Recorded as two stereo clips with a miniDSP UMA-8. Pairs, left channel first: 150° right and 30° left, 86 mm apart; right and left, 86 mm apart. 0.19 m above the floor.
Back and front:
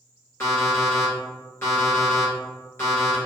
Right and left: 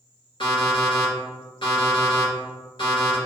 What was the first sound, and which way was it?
An alarm clock, 90° right.